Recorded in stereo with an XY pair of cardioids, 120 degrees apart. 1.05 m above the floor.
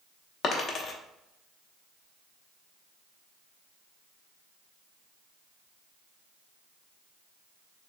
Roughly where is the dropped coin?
Ahead left.